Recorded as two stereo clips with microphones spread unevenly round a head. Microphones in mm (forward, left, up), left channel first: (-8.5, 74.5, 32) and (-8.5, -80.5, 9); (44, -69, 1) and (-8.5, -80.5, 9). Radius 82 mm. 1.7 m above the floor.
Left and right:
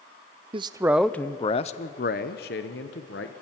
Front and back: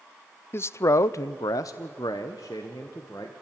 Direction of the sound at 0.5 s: 30° right.